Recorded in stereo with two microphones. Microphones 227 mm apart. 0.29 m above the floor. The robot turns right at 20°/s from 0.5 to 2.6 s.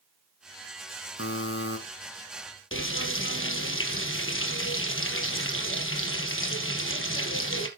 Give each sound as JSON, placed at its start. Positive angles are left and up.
{"t": 1.2, "sound": "a buzzer", "side_deg": 65, "distance_m": 2.0}
{"t": 2.7, "sound": "frying", "side_deg": 65, "distance_m": 1.9}